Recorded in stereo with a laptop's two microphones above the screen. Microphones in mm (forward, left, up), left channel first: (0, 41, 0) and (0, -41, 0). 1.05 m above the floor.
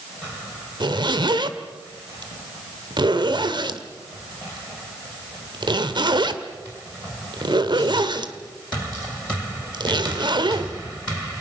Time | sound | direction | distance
0.8 | a zipper | 65° right (ahead or behind) | 1.7 m